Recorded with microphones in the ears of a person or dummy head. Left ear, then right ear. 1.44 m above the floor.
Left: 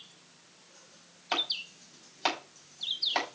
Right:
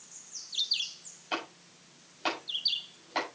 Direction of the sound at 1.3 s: 35° left (ahead or behind).